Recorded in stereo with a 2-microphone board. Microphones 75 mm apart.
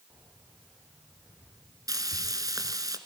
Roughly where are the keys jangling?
Right.